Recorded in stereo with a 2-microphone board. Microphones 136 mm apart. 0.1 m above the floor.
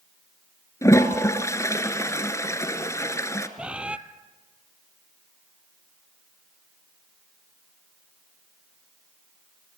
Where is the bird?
10° right (ahead or behind), 0.8 m.